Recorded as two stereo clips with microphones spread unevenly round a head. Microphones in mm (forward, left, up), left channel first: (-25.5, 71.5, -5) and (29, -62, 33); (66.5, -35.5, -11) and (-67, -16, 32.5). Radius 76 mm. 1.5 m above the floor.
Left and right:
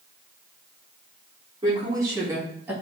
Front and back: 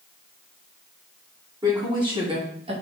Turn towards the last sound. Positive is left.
turn(degrees=-145)